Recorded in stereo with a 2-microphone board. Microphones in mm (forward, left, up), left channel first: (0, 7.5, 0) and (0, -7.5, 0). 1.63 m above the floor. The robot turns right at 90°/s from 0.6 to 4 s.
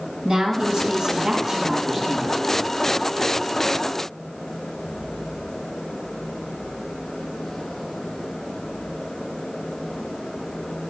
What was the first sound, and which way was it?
A woman speaking, 105° right.